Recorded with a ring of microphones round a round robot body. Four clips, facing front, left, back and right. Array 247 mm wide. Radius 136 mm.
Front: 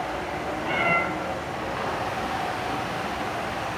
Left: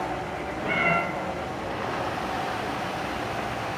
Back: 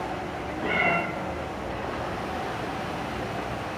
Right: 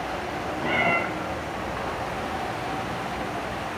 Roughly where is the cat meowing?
Behind right.